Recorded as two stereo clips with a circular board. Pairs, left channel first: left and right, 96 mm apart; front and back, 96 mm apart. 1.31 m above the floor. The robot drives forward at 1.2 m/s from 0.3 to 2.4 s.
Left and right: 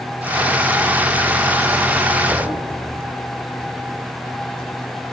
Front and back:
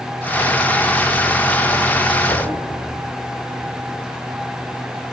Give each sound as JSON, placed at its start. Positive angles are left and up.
{"t": 2.3, "sound": "knocking", "azimuth_deg": -25, "distance_m": 4.5}